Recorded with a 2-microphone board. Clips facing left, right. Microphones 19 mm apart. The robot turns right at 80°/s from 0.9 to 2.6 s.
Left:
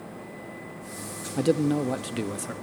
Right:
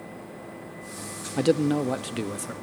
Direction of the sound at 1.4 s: 20° right (ahead or behind).